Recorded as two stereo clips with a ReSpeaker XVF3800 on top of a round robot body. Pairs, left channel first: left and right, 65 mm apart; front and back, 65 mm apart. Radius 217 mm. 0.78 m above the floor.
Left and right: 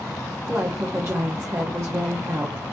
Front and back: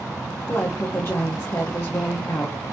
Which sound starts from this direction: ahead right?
A woman speaking, at 0.5 s.